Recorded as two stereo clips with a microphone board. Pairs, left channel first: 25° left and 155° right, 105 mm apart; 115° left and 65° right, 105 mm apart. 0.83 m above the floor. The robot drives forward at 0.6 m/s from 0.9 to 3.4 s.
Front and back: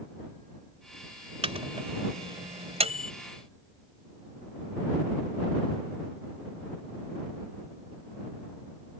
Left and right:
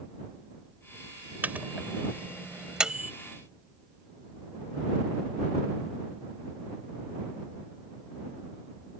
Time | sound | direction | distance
1.4 | a microwave | 140° right | ?